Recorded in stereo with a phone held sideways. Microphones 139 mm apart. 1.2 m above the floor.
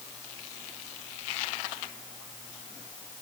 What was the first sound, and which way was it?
Only background noise.